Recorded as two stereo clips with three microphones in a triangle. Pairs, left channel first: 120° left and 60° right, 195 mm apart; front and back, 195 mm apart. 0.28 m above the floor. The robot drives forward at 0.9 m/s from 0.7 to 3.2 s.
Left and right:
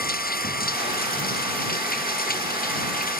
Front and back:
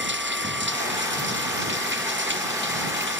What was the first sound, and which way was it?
Running water, 160° left.